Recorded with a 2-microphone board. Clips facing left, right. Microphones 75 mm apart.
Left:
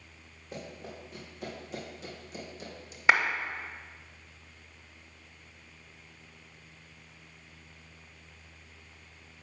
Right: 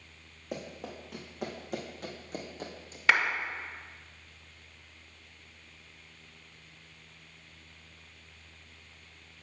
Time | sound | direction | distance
0.5 | running footsteps | 75° right (ahead or behind) | 2 m
3.1 | a clap | 20° left (ahead or behind) | 1.0 m